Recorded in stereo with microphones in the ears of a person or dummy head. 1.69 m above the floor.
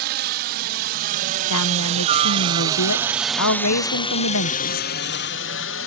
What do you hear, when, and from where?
0.0 s a helicopter: 55° right (ahead or behind); by 5.9 s 60° left (ahead or behind)
1.5 s a woman speaking: 90° left